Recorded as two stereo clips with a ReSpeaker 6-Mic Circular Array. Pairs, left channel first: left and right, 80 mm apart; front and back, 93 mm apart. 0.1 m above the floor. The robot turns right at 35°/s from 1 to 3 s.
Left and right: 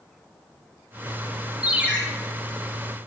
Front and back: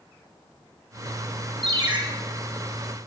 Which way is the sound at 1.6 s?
165° right.